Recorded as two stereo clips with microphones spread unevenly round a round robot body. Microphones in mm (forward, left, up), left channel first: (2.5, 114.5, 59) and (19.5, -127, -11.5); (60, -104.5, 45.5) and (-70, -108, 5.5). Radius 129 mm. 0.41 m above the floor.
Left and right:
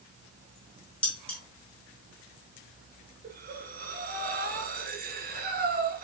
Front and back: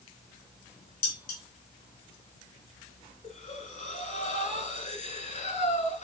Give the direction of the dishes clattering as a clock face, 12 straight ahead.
12 o'clock.